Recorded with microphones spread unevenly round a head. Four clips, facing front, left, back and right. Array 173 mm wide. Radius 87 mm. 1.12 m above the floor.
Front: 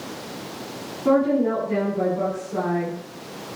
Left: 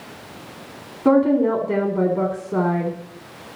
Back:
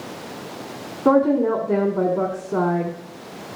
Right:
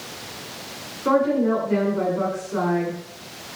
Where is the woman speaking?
145° left, 3.5 m.